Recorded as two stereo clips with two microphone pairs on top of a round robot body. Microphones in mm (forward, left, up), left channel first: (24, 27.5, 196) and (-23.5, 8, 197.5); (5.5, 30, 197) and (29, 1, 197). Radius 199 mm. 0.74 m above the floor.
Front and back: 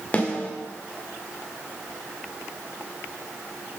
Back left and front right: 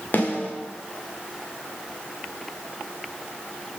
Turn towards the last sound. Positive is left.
turn(degrees=85)